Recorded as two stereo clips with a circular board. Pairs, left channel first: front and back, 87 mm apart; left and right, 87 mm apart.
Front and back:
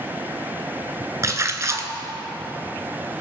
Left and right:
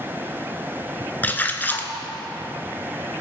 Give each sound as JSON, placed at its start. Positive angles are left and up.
{"t": 1.2, "sound": "a splash", "azimuth_deg": 150, "distance_m": 1.0}